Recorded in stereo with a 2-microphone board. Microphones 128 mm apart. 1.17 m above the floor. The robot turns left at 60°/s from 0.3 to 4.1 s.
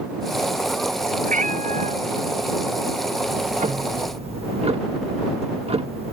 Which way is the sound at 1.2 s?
75° right.